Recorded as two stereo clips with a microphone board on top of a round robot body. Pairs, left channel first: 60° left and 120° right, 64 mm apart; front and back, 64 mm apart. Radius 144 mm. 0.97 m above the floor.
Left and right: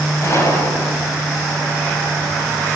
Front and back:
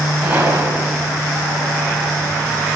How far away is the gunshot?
About 6 m.